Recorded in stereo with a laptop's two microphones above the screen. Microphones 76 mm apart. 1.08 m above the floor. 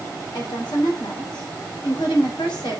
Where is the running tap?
I don't hear a running tap.